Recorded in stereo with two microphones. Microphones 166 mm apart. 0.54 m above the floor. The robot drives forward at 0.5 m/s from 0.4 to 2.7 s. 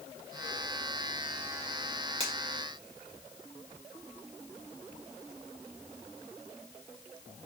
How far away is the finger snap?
About 2.0 m.